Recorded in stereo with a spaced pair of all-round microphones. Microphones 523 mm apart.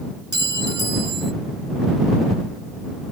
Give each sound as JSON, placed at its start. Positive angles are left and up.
{"t": 0.3, "sound": "a clink", "side_deg": 20}